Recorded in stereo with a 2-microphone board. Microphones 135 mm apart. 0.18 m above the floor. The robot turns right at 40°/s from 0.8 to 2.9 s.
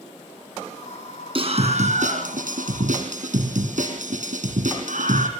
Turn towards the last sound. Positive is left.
turn(degrees=-75)